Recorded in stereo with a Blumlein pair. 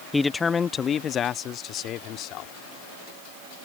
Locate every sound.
0.1 s a man speaking: 5° left; by 2.5 s 35° left